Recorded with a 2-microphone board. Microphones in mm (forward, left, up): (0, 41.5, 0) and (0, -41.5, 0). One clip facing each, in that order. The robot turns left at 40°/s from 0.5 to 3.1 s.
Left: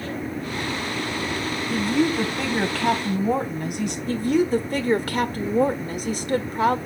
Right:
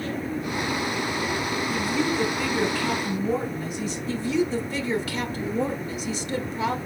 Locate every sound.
1.7 s a woman speaking: 130° left, 3 m; by 4.0 s 70° left, 3 m
4.1 s a woman speaking: 50° left (ahead or behind), 1.6 m